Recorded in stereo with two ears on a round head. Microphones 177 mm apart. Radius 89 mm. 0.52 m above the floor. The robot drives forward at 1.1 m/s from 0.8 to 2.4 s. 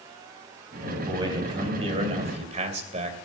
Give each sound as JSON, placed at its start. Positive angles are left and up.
{"t": 0.8, "sound": "a man speaking", "side_deg": -25, "distance_m": 4.0}